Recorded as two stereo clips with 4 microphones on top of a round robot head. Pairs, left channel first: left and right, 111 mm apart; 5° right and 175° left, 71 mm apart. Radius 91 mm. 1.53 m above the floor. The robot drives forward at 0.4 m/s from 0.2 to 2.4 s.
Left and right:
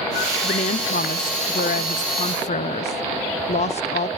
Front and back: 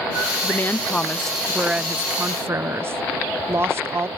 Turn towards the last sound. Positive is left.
turn(degrees=120)